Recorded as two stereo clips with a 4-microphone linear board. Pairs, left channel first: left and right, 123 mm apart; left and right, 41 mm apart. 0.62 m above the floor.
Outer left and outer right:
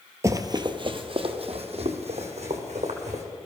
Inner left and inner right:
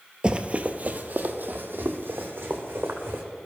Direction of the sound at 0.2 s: 25° right (ahead or behind).